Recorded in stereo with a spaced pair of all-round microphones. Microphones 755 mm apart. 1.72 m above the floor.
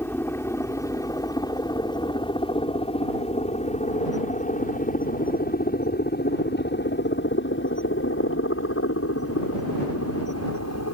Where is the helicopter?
5° left (ahead or behind); by 10.9 s 20° left (ahead or behind).